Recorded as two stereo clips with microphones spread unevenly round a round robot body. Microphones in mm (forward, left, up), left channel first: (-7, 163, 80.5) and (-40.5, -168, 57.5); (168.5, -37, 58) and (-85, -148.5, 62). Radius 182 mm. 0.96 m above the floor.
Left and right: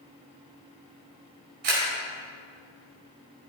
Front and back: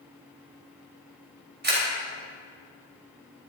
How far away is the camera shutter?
About 4 m.